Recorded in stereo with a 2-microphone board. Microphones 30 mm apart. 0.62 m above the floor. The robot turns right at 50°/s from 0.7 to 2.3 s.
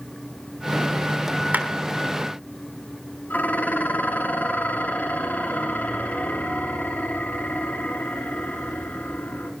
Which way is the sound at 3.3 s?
70° left (ahead or behind).